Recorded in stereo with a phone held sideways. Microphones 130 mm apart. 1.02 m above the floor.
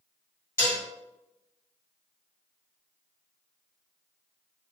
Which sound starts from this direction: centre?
Dishes clattering, at 0.6 s.